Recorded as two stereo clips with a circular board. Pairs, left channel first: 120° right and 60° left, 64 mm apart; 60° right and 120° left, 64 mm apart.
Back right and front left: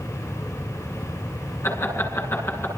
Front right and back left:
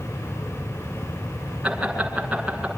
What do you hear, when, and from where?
1.6 s laughter: 165° right, 7 m